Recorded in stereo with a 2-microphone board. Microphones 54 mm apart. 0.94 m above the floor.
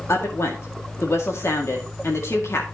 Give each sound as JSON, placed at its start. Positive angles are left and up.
{"t": 0.1, "sound": "a woman speaking", "side_deg": 55, "distance_m": 2.0}